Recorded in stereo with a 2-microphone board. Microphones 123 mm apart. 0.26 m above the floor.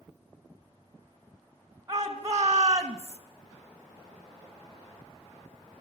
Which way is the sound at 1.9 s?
30° right (ahead or behind).